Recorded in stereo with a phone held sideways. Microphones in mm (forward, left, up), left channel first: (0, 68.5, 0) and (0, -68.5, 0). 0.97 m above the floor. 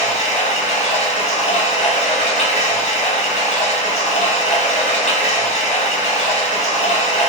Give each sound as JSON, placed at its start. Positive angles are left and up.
{"t": 0.0, "sound": "running water", "side_deg": 60, "distance_m": 2.5}